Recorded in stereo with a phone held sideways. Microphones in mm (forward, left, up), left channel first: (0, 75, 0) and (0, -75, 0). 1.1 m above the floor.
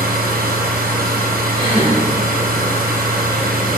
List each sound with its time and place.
0.0 s a machine running: 75° right (ahead or behind), 0.7 m
1.6 s a gasp: 35° right (ahead or behind), 1.2 m